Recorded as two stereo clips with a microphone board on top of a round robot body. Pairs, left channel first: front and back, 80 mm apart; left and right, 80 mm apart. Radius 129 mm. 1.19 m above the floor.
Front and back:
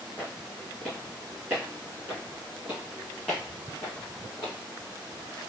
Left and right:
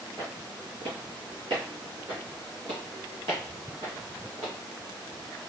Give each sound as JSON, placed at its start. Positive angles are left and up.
{"t": 0.2, "sound": "footsteps", "azimuth_deg": -70, "distance_m": 1.2}
{"t": 2.1, "sound": "footsteps", "azimuth_deg": -115, "distance_m": 1.8}